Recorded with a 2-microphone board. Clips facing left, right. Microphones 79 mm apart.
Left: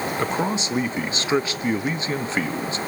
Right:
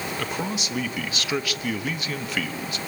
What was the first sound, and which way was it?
A man speaking, 30° left (ahead or behind).